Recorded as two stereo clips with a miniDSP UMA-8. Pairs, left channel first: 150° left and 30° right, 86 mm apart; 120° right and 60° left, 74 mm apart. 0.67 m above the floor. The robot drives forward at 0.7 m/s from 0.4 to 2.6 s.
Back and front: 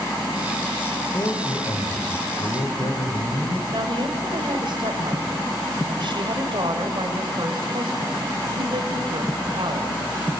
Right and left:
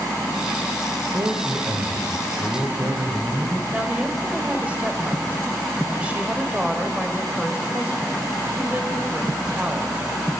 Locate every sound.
1.1 s a man speaking: 100° left, 2.5 m; by 3.6 s 125° left, 2.5 m
3.7 s a woman speaking: 10° right, 3 m